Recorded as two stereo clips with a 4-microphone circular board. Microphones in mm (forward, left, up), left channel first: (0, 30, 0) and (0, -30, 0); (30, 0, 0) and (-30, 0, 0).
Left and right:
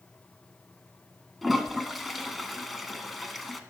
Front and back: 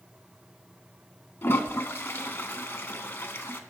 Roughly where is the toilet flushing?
Ahead.